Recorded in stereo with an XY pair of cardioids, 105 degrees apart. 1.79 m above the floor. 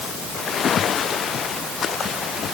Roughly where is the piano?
I don't hear a piano.